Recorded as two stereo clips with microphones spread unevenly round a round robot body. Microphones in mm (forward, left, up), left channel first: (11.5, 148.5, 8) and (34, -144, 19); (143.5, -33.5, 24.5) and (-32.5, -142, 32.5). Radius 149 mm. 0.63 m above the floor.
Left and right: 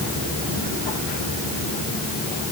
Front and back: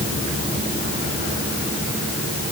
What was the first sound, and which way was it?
Only background noise.